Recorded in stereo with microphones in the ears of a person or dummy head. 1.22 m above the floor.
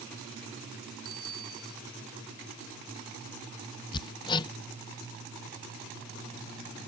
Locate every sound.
1.1 s a bicycle bell: 75° right (ahead or behind)
3.9 s hammering: 25° left (ahead or behind)